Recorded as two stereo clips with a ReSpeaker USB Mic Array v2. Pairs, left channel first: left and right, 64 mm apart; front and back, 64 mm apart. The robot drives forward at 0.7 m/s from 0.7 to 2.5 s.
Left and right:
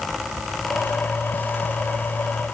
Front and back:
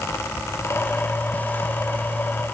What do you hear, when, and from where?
Only background noise.